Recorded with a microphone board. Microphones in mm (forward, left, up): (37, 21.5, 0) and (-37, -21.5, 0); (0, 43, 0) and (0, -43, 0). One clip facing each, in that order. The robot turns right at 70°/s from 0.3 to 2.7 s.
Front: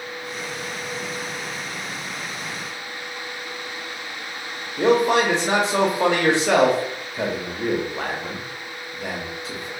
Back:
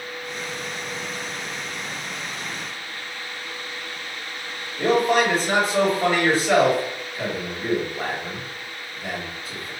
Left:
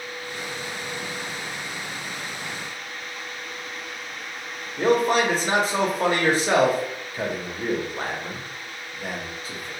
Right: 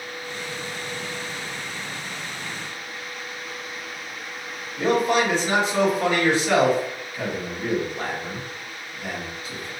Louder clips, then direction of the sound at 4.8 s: Front 2 dB, left 1 dB; 40° left.